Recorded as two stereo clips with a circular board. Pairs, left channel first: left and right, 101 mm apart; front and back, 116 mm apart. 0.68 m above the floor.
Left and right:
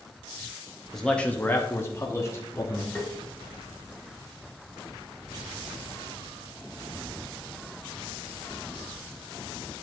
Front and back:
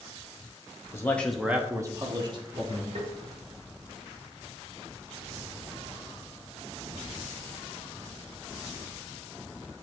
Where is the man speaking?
5° left, 0.9 m; by 2.9 s 145° left, 1.8 m.